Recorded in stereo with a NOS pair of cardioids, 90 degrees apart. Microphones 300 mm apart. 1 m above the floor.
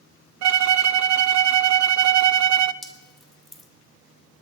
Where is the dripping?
Straight ahead, 1.9 m.